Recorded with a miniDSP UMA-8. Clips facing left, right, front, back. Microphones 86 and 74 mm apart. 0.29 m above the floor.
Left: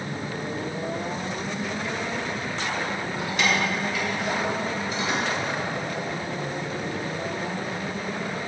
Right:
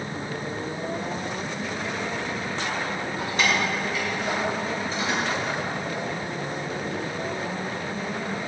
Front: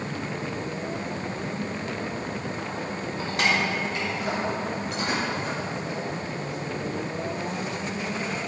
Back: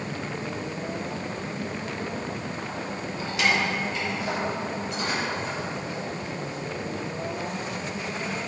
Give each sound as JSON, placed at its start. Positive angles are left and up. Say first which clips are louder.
{"t": 3.2, "sound": "keys jangling", "louder": "even, even", "azimuth_deg": -45, "distance_m": 2.0}